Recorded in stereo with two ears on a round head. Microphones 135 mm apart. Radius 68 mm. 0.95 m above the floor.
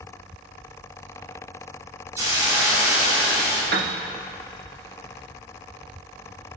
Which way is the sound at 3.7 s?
65° right (ahead or behind).